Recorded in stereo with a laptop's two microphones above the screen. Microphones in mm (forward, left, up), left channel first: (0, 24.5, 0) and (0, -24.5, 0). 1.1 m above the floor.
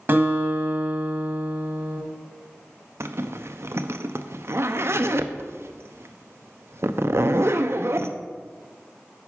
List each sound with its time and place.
0.1 s a guitar: 40° right (ahead or behind), 1.8 m
3.0 s a zipper: 60° right (ahead or behind), 0.6 m